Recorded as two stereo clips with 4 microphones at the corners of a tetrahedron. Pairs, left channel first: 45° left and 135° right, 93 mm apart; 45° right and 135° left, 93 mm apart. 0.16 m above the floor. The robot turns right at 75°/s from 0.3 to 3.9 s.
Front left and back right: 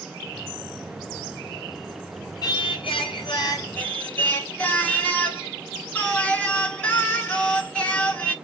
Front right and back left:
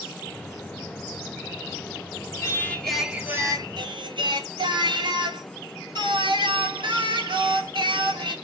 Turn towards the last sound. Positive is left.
turn(degrees=120)